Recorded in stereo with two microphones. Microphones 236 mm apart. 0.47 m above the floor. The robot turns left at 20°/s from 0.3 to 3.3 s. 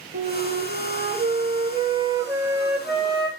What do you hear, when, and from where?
0.1 s a flute: 130° right, 0.8 m; by 3.3 s 170° left, 0.8 m